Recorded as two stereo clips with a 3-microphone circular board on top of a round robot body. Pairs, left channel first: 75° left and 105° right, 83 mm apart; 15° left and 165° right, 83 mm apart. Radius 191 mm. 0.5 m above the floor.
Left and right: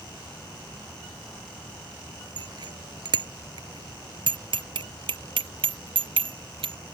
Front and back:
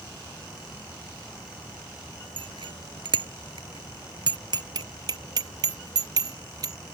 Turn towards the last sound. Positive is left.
turn(degrees=-120)